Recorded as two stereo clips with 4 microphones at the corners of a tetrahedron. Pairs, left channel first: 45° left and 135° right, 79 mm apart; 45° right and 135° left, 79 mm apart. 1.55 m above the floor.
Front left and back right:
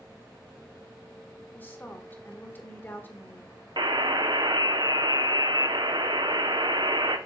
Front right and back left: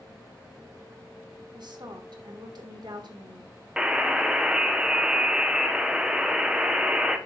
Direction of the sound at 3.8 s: 145° right.